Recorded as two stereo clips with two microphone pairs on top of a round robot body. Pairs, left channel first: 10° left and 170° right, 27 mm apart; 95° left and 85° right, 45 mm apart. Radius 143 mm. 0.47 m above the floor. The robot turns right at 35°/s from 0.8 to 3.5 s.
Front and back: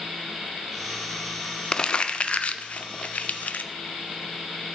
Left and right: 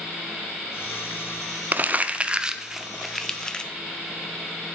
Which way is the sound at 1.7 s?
45° right.